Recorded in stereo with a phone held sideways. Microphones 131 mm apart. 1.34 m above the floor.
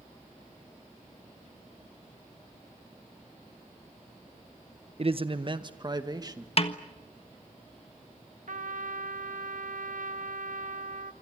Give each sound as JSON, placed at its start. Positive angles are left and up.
{"t": 5.0, "sound": "a man speaking", "side_deg": -45, "distance_m": 1.0}
{"t": 6.6, "sound": "a snare drum", "side_deg": 45, "distance_m": 1.4}
{"t": 8.5, "sound": "a trumpet", "side_deg": -70, "distance_m": 1.2}